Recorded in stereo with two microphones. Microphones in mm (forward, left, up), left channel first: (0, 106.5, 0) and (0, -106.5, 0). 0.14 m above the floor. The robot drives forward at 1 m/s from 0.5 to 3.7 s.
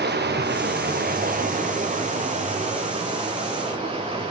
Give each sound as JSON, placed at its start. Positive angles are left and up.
{"t": 0.0, "sound": "running water", "side_deg": -55, "distance_m": 2.5}